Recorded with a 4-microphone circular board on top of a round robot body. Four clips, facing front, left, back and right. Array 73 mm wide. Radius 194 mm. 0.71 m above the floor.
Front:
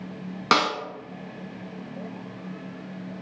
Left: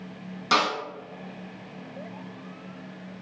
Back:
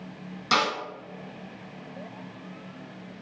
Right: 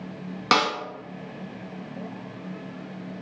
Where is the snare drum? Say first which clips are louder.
Right 1 dB, front 3 dB; 35° right, 0.8 m.